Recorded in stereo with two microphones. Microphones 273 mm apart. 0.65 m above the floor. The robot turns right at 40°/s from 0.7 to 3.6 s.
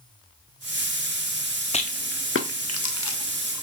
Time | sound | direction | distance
1.7 | a rattle | 25° left (ahead or behind) | 0.5 m